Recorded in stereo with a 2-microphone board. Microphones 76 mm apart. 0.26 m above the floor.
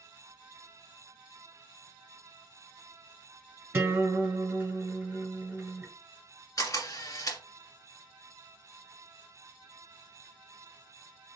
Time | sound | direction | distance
3.7 | a guitar | 25° right (ahead or behind) | 1.7 m
6.6 | a camera shutter | 50° left (ahead or behind) | 2.0 m